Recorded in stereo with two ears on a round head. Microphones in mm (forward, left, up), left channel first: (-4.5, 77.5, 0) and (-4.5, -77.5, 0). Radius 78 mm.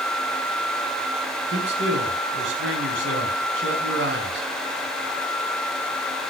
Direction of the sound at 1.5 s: 75° right (ahead or behind).